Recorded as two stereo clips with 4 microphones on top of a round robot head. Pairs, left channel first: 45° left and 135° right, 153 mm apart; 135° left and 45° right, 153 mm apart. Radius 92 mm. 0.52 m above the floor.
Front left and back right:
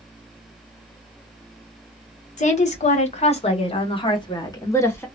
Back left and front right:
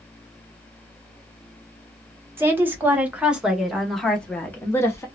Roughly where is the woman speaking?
Ahead left.